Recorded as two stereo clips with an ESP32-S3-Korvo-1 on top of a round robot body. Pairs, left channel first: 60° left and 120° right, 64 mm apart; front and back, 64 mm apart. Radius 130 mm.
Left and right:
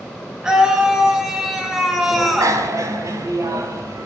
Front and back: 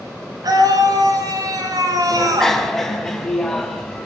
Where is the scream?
160° left, 8 m; by 2.6 s 155° left, 7.5 m.